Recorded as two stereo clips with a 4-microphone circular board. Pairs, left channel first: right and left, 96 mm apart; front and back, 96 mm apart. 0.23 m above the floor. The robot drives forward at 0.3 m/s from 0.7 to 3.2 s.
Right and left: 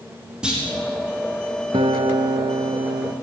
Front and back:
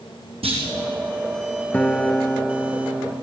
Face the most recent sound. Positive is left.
turn(degrees=110)